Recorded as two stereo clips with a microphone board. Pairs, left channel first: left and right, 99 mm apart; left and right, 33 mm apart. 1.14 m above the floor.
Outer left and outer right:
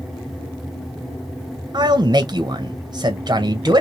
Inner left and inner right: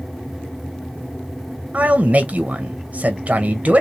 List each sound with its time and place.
1.7 s a man speaking: 40° right (ahead or behind), 0.7 m